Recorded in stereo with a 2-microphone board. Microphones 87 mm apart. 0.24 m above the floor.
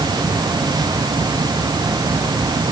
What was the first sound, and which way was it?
Only background noise.